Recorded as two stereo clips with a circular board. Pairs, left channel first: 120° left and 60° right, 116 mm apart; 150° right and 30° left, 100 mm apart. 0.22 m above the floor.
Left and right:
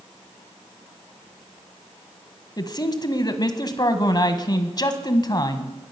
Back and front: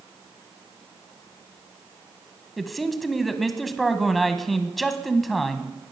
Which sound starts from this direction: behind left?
A man speaking, at 2.6 s.